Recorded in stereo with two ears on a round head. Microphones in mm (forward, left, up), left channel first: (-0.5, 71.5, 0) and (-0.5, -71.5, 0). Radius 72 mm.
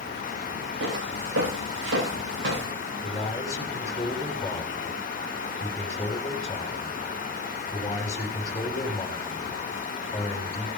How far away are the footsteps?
About 10 m.